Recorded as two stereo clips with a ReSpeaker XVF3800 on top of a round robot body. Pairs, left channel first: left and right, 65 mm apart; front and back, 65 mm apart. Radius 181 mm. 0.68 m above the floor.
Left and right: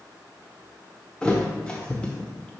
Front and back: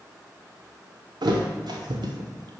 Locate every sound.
1.2 s a thud: 165° left, 0.8 m